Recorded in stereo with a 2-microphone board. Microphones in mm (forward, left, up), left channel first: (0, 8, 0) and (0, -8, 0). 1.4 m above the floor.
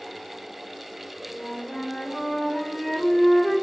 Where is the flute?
40° left (ahead or behind), 1.3 m.